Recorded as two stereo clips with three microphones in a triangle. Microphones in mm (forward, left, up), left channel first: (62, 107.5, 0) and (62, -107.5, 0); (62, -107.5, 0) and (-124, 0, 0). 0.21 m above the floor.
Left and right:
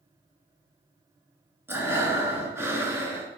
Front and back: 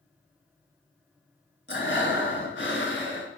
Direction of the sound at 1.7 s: 10° right.